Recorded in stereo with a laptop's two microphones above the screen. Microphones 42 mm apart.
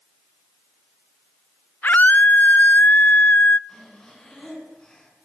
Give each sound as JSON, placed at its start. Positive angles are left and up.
{"t": 1.8, "sound": "a scream", "side_deg": 45, "distance_m": 0.7}
{"t": 3.7, "sound": "breathing", "side_deg": 15, "distance_m": 9.0}